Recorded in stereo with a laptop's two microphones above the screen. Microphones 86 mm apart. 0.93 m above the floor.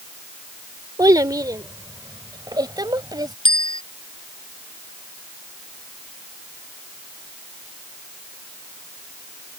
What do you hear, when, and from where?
1.0 s a child speaking: 50° right (ahead or behind); by 3.3 s 55° right (ahead or behind)
3.5 s a bicycle bell: 85° left